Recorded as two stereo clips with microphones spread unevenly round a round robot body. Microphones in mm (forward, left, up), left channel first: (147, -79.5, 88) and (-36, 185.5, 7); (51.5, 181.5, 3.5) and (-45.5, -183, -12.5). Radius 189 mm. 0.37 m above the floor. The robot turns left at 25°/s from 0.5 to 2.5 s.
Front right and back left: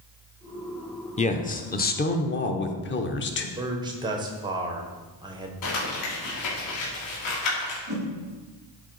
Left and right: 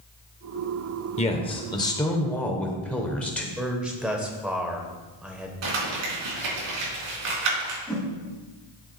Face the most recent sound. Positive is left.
turn(degrees=165)